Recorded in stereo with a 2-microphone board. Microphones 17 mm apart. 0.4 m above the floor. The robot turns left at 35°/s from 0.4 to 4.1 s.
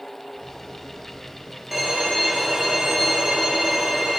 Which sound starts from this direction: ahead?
A violin, at 1.7 s.